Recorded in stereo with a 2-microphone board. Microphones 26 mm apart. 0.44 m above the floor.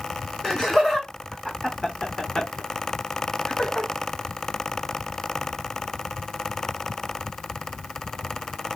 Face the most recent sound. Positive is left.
turn(degrees=35)  # may be behind; listen again after turning